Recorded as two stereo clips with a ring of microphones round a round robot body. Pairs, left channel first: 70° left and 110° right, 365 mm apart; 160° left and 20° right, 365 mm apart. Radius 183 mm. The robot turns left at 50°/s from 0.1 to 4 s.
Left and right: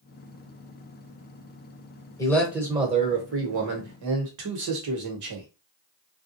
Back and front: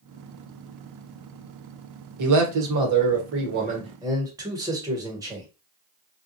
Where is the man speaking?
10° right, 1.2 m; by 5.5 s 100° right, 1.2 m.